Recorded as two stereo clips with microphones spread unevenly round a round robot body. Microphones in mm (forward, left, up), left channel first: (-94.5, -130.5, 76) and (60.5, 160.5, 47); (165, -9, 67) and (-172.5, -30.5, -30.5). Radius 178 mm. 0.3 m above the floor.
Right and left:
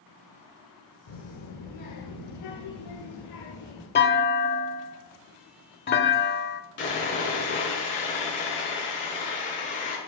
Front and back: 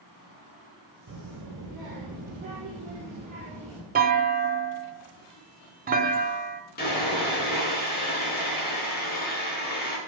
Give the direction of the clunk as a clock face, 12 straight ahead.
6 o'clock.